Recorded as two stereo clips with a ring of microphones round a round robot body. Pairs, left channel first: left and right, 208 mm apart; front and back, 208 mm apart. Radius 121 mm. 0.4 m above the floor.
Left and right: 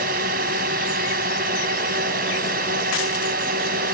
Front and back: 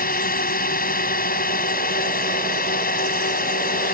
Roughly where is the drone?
Ahead right.